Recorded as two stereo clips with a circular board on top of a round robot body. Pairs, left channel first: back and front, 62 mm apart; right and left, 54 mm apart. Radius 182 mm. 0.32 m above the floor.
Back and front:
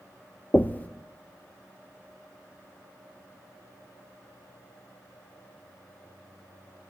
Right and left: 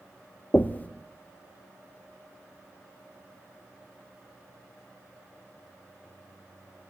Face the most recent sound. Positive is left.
turn(degrees=-130)